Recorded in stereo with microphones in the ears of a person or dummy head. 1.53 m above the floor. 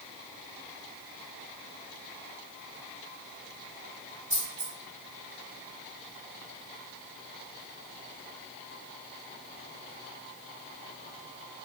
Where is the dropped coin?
15° right (ahead or behind), 1.7 m.